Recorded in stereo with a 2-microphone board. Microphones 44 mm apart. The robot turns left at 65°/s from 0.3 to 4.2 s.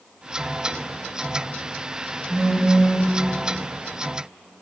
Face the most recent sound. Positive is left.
turn(degrees=-100)